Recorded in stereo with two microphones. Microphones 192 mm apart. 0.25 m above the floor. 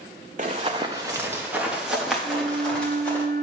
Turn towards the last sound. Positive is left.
turn(degrees=-55)  # may be behind; listen again after turning